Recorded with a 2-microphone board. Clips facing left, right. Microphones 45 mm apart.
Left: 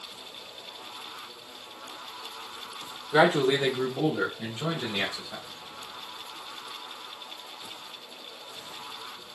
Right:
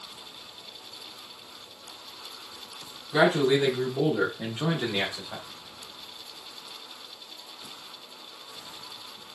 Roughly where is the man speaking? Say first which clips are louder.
Even; left.